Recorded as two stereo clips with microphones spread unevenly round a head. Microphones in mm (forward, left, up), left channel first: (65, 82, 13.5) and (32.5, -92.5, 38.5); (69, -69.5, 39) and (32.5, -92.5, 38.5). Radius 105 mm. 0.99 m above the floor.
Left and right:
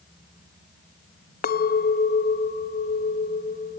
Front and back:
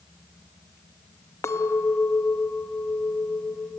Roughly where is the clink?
Ahead left.